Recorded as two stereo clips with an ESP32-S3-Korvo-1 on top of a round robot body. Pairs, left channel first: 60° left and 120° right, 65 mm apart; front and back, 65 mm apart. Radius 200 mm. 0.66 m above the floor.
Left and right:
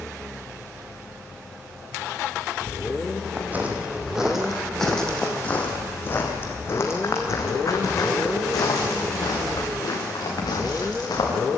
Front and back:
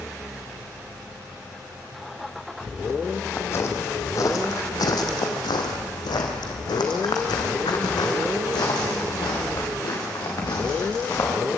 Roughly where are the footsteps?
Ahead right.